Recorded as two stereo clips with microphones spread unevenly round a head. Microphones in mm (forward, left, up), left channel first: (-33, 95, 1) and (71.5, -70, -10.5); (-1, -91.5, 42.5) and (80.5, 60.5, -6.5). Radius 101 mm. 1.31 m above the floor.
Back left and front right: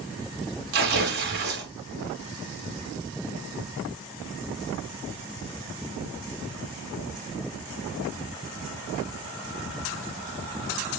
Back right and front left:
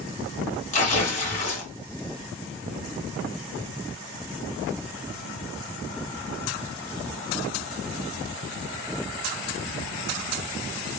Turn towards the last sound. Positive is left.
turn(degrees=-95)